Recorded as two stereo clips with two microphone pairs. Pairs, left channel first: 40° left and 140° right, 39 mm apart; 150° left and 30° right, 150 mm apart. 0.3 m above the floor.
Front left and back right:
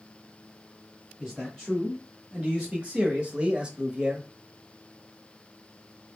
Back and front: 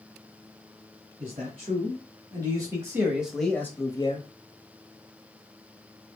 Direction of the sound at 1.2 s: 70° right.